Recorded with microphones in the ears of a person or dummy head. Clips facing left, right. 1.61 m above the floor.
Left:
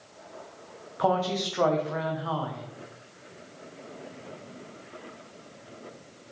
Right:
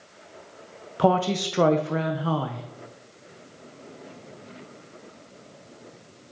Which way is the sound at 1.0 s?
40° right (ahead or behind).